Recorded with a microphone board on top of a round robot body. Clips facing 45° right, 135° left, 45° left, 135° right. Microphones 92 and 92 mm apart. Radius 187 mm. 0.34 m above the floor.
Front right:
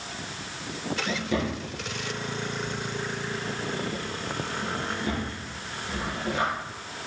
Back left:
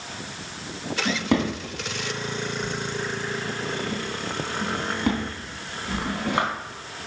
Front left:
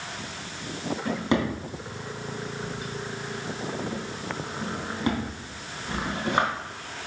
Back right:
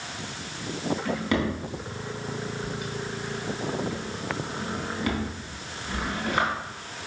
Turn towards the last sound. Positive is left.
turn(degrees=110)